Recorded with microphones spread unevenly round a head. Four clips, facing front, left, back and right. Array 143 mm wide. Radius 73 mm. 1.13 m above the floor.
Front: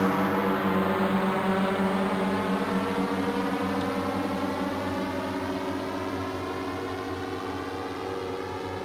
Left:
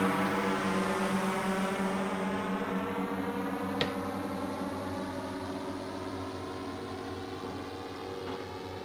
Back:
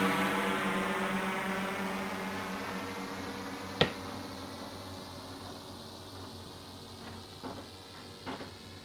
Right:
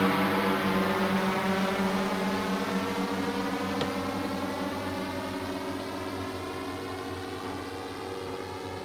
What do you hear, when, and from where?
0.0 s a drone: 30° right; by 8.9 s 5° right
3.8 s tapping: 170° right